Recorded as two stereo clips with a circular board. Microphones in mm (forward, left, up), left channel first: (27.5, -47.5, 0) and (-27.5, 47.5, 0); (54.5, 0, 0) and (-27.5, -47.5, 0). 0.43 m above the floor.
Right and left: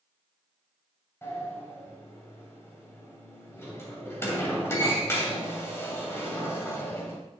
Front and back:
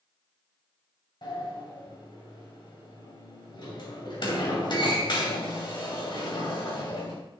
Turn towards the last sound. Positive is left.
turn(degrees=5)